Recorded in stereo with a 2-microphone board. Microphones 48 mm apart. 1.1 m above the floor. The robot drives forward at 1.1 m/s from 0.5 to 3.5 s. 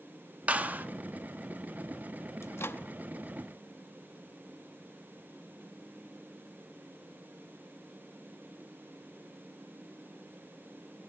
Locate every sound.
0.5 s a clap: 30° right (ahead or behind), 1.4 m; by 0.9 s 40° right (ahead or behind), 1.1 m
2.4 s a microwave: 70° left (ahead or behind), 0.9 m; by 2.8 s 50° left (ahead or behind), 1.1 m